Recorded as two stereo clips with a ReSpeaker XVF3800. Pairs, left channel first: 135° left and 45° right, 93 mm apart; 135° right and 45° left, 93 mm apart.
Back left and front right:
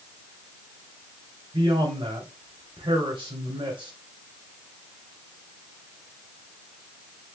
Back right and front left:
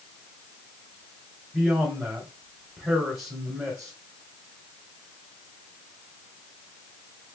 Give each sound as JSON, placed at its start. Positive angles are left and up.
{"t": 1.5, "sound": "a man speaking", "azimuth_deg": -25, "distance_m": 1.4}